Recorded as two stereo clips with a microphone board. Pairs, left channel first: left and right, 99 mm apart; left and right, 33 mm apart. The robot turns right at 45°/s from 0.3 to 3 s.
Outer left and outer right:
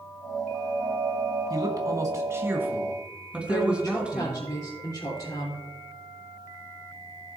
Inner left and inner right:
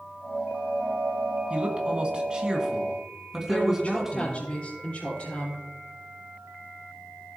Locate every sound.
1.5 s a man speaking: 85° right, 1.7 m; by 4.5 s 20° right, 1.7 m
3.5 s a woman speaking: 35° left (ahead or behind), 4 m